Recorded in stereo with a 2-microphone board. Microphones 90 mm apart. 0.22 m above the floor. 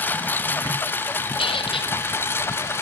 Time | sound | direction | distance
0.0 | a lawn mower | 20° left (ahead or behind) | ?
1.4 | a squeak | 75° left (ahead or behind) | ?